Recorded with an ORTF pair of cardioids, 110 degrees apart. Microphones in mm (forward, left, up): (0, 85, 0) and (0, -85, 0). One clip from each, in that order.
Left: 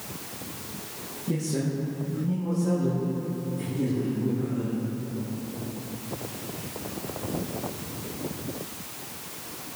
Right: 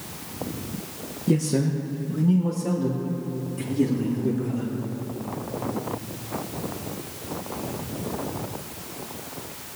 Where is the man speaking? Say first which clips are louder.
Right 6 dB; 45° right, 1.3 m.